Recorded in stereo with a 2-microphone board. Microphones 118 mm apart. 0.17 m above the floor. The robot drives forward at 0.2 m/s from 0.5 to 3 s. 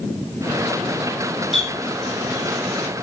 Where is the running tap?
Centre (ahead or behind), 1.8 m.